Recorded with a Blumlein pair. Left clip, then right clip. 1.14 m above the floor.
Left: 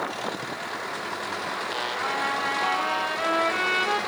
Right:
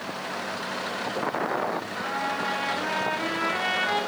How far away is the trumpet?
About 1.0 m.